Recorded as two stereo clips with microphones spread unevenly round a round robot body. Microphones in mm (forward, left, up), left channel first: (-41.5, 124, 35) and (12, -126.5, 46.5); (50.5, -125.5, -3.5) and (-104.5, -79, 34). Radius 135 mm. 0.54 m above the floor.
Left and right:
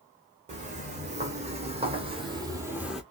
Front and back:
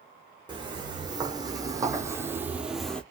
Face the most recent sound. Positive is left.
turn(degrees=-155)